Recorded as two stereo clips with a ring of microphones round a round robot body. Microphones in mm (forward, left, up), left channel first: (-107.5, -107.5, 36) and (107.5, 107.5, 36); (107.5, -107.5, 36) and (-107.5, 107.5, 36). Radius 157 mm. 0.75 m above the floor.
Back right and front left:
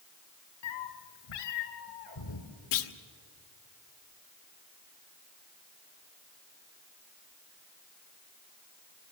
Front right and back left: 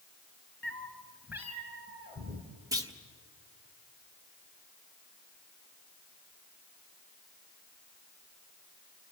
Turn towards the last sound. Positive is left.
turn(degrees=-145)